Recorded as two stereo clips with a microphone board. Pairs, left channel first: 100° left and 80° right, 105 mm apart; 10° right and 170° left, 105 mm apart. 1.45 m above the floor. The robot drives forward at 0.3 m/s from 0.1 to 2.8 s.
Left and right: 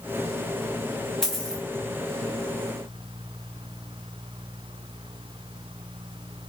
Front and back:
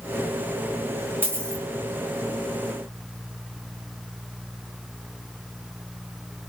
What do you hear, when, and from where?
1.2 s a dropped coin: 175° left, 0.9 m; by 1.6 s straight behind, 1.0 m